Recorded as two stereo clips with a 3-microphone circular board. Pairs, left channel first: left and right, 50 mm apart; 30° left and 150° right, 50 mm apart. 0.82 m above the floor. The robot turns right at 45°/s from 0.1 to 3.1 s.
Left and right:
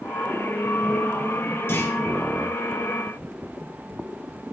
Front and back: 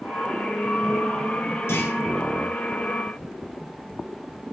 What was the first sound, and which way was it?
A clunk, 55° left.